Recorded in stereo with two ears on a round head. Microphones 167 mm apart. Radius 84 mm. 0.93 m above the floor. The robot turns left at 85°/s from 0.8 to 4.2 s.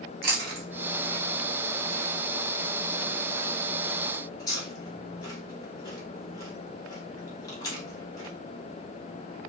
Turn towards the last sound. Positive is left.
turn(degrees=20)  # may be behind; listen again after turning